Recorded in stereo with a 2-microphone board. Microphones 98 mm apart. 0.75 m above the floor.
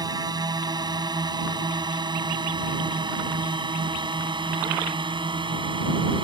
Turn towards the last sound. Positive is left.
turn(degrees=-60)  # may be behind; listen again after turning